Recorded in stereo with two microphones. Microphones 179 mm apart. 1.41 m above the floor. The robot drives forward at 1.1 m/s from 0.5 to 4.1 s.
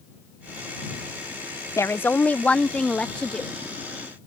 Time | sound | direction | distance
1.8 | a woman speaking | 15° left (ahead or behind) | ?